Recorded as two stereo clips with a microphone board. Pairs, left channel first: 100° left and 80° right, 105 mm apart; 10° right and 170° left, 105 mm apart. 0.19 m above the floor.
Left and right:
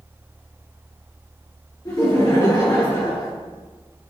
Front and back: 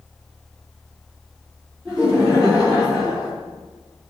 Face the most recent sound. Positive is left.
turn(degrees=95)